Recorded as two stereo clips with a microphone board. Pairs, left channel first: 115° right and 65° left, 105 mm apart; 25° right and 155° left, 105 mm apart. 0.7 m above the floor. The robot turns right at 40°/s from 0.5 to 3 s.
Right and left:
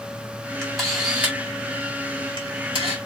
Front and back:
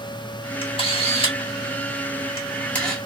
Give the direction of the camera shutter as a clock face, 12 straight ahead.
1 o'clock.